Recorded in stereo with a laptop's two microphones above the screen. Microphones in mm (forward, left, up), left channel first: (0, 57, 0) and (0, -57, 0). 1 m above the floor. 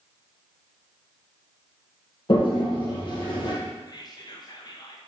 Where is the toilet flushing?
45° left (ahead or behind), 1.0 m.